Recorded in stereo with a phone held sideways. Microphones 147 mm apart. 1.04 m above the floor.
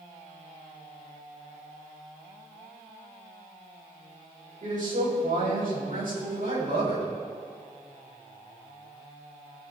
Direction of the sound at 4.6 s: 65° right (ahead or behind).